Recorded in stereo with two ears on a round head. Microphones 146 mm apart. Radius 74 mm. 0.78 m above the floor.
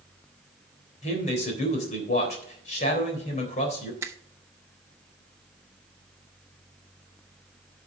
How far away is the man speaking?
About 3.5 m.